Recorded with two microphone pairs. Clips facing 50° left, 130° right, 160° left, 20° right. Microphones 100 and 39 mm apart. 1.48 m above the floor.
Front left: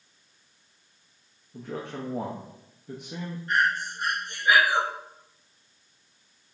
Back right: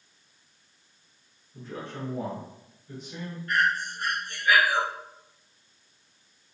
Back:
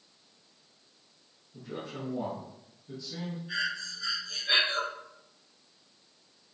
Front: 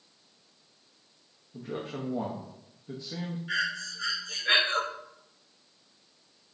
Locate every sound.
1.5 s a man speaking: 35° left, 0.7 m
3.5 s breathing: 10° right, 0.9 m